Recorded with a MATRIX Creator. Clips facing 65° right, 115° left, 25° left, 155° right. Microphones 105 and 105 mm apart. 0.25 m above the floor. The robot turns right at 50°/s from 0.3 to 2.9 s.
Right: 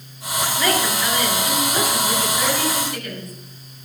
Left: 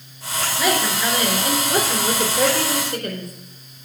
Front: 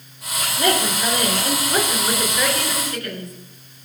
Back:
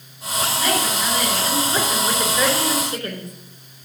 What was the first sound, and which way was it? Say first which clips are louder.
A woman speaking: left 1 dB, front 4 dB; 30° left.